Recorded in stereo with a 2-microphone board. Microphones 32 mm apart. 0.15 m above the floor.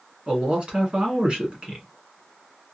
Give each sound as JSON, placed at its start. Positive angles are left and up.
{"t": 0.3, "sound": "a man speaking", "side_deg": -35, "distance_m": 1.3}